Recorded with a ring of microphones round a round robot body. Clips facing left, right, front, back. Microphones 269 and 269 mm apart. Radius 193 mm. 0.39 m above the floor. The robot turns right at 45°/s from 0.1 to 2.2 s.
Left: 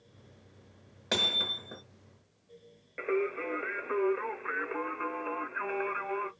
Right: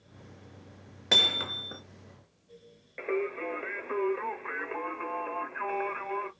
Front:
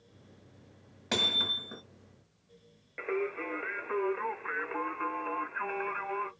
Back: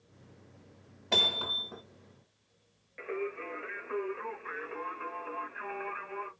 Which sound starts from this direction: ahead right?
Hammering, at 1.1 s.